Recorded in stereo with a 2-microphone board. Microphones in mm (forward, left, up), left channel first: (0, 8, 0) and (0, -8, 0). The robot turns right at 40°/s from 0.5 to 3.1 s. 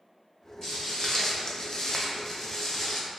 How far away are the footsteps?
About 0.9 m.